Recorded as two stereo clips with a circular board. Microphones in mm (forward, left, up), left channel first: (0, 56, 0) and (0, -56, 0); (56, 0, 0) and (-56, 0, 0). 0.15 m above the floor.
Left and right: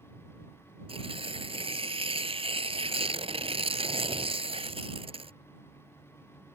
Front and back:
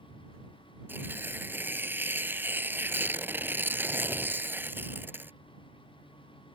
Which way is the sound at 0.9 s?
110° right.